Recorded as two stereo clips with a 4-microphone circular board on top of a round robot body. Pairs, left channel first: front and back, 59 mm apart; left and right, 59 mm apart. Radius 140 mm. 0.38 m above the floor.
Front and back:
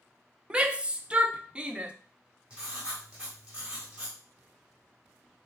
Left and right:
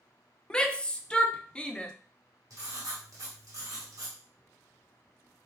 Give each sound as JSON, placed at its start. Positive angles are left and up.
{"t": 0.5, "sound": "a shout", "azimuth_deg": 140, "distance_m": 0.8}
{"t": 2.5, "sound": "writing", "azimuth_deg": -105, "distance_m": 1.7}